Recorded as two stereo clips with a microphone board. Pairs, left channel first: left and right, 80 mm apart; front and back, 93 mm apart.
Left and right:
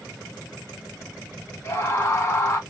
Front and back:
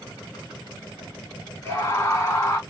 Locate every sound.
1.6 s a scream: 50° left, 1.5 m